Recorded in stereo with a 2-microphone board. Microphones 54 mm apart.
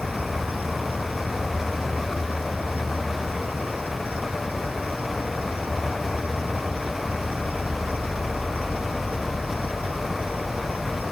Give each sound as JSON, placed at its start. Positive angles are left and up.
{"t": 0.0, "sound": "an insect", "side_deg": -35}